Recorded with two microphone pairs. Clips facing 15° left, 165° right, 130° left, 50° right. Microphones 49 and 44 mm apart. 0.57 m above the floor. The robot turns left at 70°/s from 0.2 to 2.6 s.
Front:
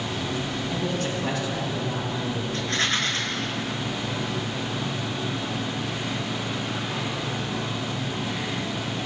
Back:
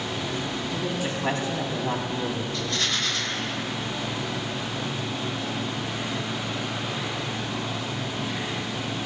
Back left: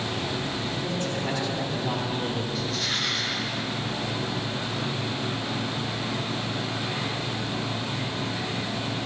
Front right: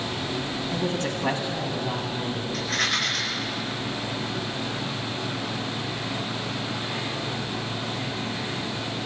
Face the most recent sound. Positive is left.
turn(degrees=-35)